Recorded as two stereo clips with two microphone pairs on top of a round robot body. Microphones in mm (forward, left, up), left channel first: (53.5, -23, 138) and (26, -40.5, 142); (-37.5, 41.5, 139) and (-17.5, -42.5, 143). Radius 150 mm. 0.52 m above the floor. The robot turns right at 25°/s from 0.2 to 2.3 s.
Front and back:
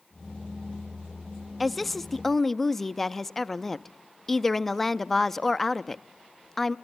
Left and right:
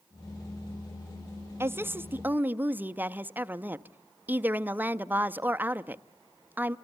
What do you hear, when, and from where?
1.6 s a woman speaking: 45° right, 0.7 m; by 6.8 s 25° right, 0.7 m